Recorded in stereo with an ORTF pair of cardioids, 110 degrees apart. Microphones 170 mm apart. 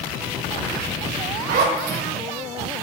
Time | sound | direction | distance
1.5 | a zipper | 70° right | 2 m